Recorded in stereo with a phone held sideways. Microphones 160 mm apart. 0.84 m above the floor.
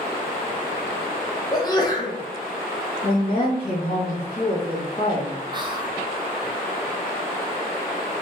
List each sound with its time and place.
1.5 s a sneeze: 25° left (ahead or behind), 0.6 m
3.0 s a woman speaking: 40° left (ahead or behind), 1.4 m
5.5 s whispering: 30° right (ahead or behind), 0.5 m